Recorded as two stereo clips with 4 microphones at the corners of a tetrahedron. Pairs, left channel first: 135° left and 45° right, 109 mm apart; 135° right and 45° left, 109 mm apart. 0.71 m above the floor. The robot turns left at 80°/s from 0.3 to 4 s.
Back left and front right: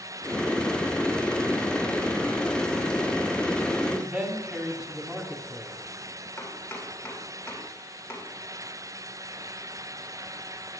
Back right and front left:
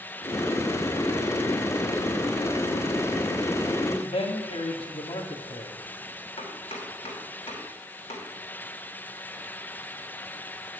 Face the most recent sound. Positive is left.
turn(degrees=-160)